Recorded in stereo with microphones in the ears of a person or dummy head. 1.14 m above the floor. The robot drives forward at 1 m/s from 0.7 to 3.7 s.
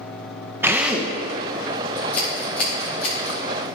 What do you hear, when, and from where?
0.6 s a drill: 10° right (ahead or behind), 0.5 m; by 1.1 s 5° right (ahead or behind), 1.0 m
2.0 s scissors: 5° left (ahead or behind), 1.9 m